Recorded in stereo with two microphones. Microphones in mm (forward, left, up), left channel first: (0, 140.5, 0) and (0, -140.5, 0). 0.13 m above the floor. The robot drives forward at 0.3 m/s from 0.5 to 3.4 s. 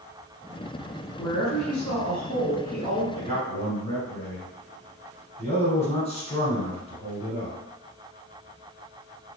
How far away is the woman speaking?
About 1.6 m.